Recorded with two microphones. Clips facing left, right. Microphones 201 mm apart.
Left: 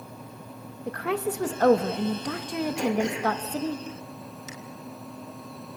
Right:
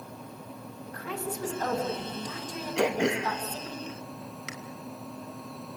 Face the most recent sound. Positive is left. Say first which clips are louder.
# right 3 dB
turn(degrees=-75)  # may be behind; listen again after turning